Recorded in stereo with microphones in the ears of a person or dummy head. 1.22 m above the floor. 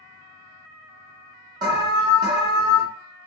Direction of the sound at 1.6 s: 25° right (ahead or behind).